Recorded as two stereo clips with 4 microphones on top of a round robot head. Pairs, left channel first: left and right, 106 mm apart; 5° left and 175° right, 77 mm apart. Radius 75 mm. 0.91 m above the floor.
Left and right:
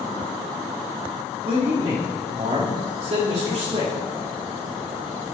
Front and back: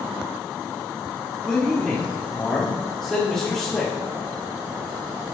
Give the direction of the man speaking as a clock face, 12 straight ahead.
3 o'clock.